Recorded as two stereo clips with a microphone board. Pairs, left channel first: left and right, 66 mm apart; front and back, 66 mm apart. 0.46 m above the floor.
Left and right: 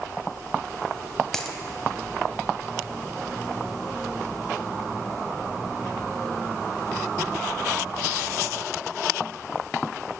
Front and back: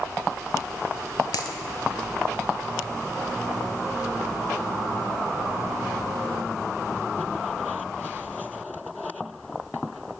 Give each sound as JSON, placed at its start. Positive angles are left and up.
{"t": 1.3, "sound": "a dropped coin", "azimuth_deg": 10, "distance_m": 0.6}